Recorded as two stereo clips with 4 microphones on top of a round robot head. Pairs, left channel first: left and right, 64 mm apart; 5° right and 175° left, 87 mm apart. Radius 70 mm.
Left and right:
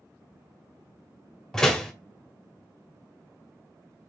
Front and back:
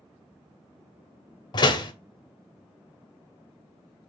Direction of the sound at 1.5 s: 10° left.